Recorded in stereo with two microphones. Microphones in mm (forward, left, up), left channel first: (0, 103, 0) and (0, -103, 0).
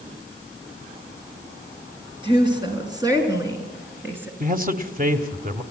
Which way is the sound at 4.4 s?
45° right (ahead or behind).